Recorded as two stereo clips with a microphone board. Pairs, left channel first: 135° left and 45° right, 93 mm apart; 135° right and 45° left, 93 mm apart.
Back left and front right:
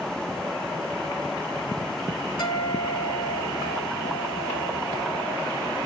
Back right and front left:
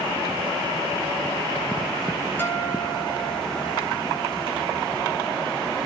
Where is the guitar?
155° left, 2.5 m.